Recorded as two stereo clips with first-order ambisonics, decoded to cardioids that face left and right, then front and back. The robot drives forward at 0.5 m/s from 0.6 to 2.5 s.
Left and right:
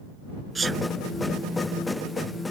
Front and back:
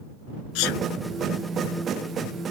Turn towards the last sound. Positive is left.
turn(degrees=-15)